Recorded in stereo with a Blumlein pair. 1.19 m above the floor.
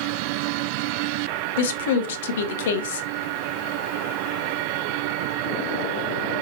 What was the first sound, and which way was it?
A woman speaking, 60° left.